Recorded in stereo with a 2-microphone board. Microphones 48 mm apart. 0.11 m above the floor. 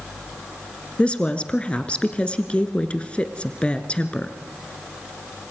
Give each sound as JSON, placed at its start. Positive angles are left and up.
{"t": 1.0, "sound": "a woman speaking", "side_deg": 25, "distance_m": 1.5}